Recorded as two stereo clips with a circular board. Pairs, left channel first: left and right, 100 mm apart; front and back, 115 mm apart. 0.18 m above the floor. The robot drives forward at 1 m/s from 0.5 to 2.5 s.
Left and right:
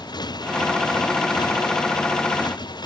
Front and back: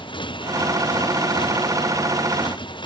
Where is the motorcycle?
45° left.